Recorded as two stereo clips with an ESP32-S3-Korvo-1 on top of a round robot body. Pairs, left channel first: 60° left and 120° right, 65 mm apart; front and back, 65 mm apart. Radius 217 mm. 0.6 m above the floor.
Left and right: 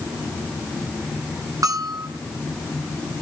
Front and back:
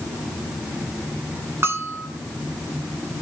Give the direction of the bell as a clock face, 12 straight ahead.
4 o'clock.